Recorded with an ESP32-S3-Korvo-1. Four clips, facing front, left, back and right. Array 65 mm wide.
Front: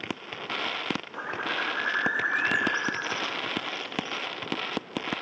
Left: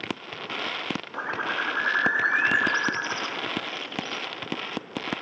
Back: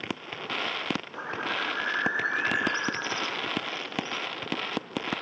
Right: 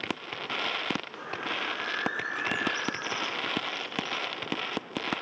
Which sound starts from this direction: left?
A bird, at 1.1 s.